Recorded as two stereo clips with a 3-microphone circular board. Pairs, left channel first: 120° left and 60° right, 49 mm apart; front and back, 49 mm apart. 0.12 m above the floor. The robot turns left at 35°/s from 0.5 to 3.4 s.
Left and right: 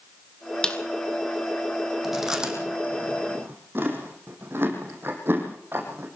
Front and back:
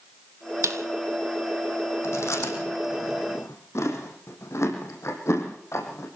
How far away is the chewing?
About 6 m.